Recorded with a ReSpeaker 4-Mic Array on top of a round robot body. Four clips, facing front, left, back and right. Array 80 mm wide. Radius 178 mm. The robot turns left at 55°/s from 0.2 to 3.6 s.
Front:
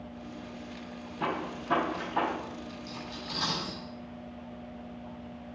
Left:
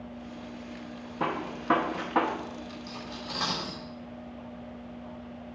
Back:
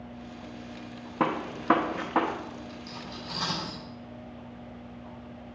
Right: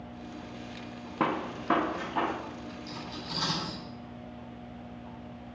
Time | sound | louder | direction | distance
1.2 | a gunshot | right 2 dB, back 5 dB | 155° right | 0.7 m
2.9 | cutlery clinking | left 1 dB, even | 130° left | 3.5 m